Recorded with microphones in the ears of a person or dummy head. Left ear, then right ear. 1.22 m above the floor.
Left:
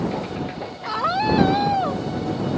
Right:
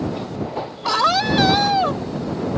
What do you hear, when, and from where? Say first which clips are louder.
0.8 s a scream: right 4 dB; 85° right